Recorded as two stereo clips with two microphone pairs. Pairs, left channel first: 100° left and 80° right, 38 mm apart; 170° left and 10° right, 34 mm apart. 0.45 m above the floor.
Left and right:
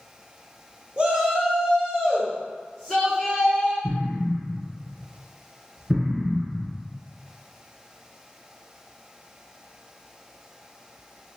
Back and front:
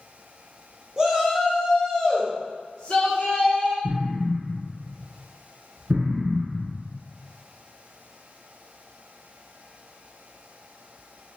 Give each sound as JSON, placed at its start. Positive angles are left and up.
{"t": 1.0, "sound": "a shout", "azimuth_deg": -60, "distance_m": 1.2}
{"t": 3.8, "sound": "an explosion", "azimuth_deg": -15, "distance_m": 1.6}